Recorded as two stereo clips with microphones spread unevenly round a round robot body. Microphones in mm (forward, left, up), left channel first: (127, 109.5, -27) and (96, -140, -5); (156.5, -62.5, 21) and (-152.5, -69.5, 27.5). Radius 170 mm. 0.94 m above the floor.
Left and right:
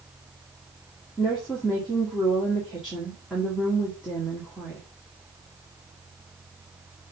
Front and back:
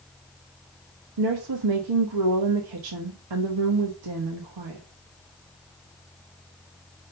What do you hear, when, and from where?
1.2 s a woman speaking: 175° left, 1.1 m